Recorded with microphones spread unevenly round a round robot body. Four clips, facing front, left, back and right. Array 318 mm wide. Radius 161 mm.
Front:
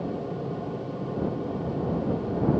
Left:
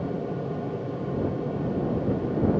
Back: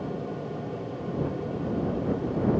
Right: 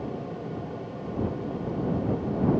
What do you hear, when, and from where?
Only background noise.